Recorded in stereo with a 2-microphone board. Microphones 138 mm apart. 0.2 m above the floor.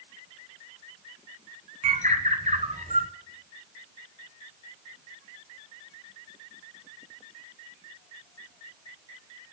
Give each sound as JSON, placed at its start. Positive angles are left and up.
{"t": 1.8, "sound": "a bird", "side_deg": -60, "distance_m": 0.8}